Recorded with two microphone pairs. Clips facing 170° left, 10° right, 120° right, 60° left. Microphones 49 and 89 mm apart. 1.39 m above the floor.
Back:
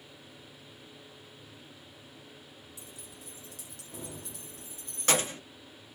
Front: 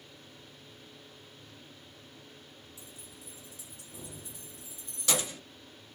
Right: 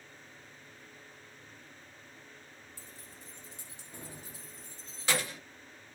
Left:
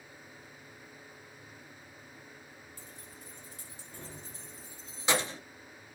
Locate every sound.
2.8 s keys jangling: 175° right, 2.5 m; by 5.4 s 115° left, 1.2 m